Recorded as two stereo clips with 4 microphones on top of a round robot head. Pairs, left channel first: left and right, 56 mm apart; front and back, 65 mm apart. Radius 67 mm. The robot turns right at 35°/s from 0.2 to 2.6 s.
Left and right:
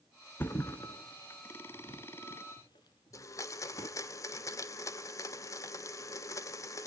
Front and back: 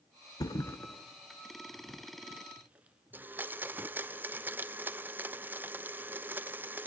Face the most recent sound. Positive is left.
turn(degrees=120)